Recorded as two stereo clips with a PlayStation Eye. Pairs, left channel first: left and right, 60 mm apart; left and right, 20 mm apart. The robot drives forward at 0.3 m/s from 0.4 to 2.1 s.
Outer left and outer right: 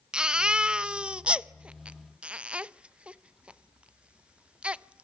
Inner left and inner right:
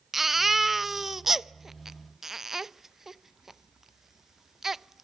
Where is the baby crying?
15° right (ahead or behind), 0.7 m; by 5.0 s 20° right (ahead or behind), 0.6 m.